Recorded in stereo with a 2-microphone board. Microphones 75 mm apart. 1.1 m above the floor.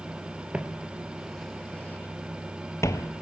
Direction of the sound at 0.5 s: 15° right (ahead or behind).